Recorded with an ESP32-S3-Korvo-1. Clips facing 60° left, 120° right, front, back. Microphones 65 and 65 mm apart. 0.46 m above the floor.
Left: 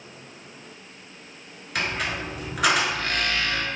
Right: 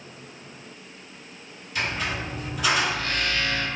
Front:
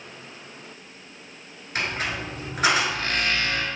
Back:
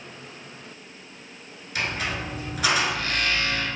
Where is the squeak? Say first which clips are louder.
Left 1 dB, even; 50° left, 1.0 m.